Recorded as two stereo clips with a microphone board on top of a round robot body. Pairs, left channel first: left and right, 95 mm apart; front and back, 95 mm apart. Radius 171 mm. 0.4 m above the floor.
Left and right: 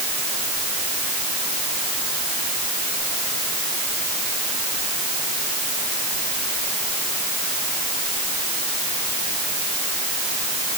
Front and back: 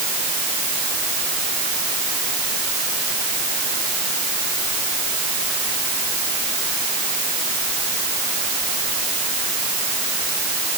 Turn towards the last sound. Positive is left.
No sound to turn to.